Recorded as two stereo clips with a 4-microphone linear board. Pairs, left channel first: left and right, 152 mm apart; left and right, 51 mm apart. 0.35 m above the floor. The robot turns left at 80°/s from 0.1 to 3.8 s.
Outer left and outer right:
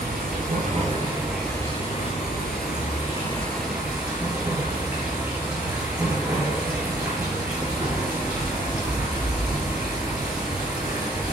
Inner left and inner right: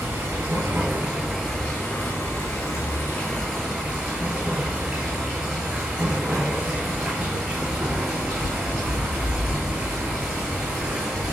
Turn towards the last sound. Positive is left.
turn(degrees=-15)